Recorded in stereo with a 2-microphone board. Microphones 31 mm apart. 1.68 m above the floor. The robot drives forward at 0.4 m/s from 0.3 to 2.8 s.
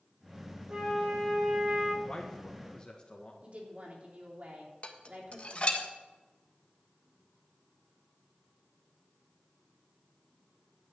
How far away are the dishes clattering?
About 1.4 m.